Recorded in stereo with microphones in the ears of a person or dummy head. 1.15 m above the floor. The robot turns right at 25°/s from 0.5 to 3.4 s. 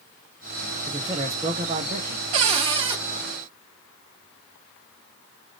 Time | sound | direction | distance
0.9 | a man speaking | 165° right | 0.6 m
2.3 | a cupboard door | 40° right (ahead or behind) | 0.6 m